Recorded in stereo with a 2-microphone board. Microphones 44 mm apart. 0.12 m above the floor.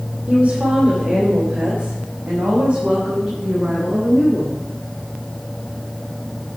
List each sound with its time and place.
0.3 s a woman speaking: 25° right (ahead or behind), 4 m